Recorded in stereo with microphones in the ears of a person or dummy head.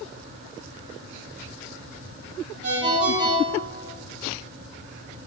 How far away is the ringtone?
About 1.9 m.